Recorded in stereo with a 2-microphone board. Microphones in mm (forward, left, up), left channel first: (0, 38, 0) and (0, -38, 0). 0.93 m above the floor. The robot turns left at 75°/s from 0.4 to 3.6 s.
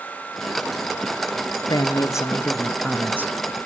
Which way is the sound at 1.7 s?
85° left.